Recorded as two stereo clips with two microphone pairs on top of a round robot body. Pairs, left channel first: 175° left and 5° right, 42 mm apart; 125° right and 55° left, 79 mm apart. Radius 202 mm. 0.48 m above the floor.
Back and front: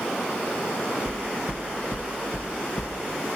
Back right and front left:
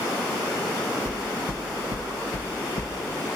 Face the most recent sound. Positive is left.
turn(degrees=-165)